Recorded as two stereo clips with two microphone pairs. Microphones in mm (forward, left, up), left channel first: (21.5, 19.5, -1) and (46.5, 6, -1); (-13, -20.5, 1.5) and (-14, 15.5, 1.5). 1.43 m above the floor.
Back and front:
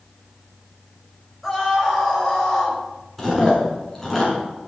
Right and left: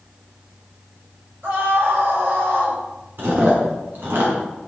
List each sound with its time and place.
1.4 s a scream: 60° left, 6 m; by 2.8 s 70° left, 5.5 m
3.2 s chewing: 70° left, 6.5 m